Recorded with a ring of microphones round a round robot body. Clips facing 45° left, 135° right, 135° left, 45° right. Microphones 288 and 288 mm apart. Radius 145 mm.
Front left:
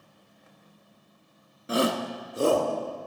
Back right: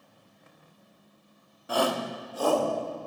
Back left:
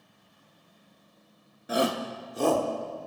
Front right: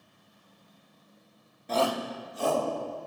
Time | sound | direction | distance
1.7 | a shout | 65° left | 0.8 m